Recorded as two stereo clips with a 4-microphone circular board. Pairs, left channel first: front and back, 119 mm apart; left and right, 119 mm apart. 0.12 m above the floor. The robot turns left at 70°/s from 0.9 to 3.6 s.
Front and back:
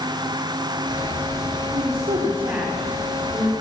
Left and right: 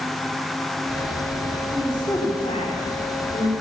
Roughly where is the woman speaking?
Behind.